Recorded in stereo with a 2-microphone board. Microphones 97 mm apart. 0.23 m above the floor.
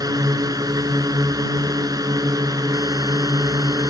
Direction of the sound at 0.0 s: 40° right (ahead or behind).